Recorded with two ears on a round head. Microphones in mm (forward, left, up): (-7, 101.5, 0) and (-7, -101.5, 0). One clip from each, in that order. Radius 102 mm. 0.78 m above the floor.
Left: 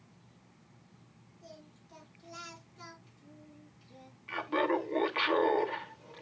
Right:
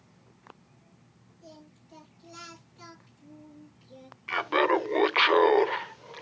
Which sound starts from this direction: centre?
Singing, at 1.4 s.